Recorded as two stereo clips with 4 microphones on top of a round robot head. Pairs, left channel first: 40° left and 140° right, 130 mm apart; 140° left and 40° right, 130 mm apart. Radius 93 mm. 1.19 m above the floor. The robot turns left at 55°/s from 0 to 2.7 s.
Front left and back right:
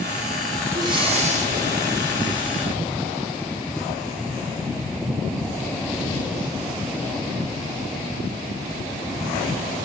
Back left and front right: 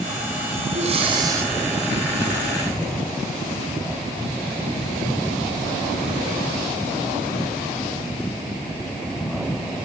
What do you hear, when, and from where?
0.7 s breathing: 75° right, 4.5 m; by 1.5 s 120° right, 4.5 m